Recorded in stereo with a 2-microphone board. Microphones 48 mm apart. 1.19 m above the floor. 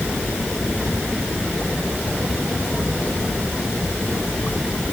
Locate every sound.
Only background noise.